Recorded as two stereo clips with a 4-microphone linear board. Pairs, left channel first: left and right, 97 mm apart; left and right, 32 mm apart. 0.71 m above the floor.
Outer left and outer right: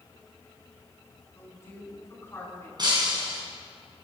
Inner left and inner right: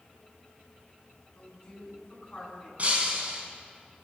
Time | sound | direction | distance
1.4 | a woman speaking | 25° left (ahead or behind) | 7 m
2.8 | breaking glass | 45° right (ahead or behind) | 4.5 m